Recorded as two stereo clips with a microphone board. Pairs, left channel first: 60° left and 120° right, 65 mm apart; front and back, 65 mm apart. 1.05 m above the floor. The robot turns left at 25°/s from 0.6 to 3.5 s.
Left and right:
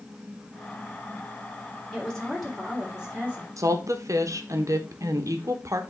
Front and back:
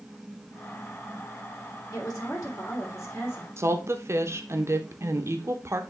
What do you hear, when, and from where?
1.9 s a woman speaking: 20° right, 3 m; by 3.5 s 55° right, 3 m
3.6 s a woman speaking: 140° right, 1.0 m